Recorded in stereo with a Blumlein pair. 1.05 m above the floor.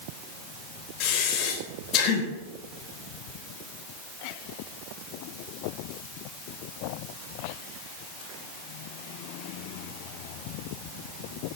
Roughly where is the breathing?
Ahead left.